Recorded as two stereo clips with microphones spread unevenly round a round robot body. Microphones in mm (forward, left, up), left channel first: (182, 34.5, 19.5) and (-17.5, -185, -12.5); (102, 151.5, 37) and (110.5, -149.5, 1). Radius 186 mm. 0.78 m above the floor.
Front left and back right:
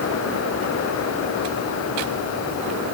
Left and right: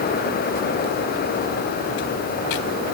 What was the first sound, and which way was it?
Only background noise.